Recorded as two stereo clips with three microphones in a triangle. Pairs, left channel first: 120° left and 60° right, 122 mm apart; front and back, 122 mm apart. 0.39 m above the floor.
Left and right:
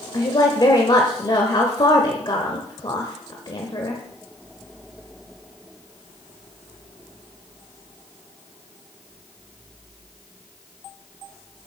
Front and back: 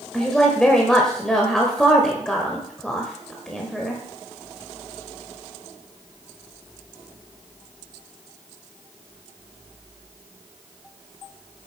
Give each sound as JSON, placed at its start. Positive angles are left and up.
{"t": 0.1, "sound": "a woman speaking", "azimuth_deg": 85, "distance_m": 1.2}